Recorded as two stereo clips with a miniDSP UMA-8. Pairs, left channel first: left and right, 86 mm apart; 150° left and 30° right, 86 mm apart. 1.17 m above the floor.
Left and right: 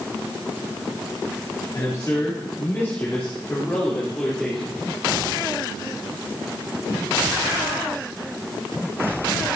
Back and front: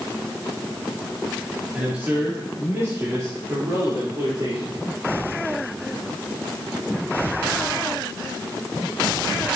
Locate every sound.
1.7 s a man speaking: 45° left, 3 m; by 4.9 s 5° left, 3.5 m